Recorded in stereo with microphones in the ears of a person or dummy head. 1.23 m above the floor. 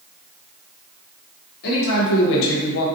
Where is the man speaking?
60° left (ahead or behind), 1.3 m; by 2.9 s 70° left (ahead or behind), 0.7 m.